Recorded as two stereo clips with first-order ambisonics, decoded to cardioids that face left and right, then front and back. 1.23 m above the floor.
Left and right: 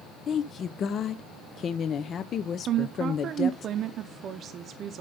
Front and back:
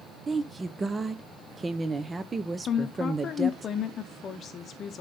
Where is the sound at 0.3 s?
115° left, 0.5 m.